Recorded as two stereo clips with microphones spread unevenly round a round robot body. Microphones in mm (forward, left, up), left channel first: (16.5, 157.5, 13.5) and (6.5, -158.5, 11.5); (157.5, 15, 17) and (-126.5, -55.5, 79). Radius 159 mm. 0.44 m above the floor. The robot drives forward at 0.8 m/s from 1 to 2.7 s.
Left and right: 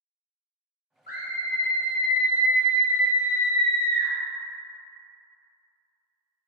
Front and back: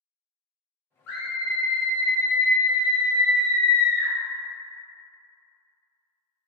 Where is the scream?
30° left, 1.7 m; by 4.1 s 85° left, 1.0 m.